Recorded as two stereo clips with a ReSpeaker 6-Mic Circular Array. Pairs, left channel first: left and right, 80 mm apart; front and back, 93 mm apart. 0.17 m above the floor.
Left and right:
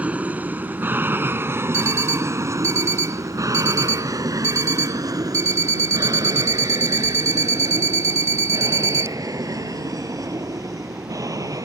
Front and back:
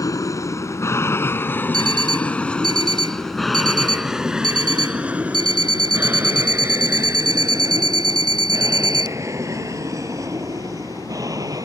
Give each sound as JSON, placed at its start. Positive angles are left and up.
{"t": 0.0, "sound": "an aircraft", "azimuth_deg": -25}
{"t": 1.7, "sound": "an alarm clock", "azimuth_deg": -140}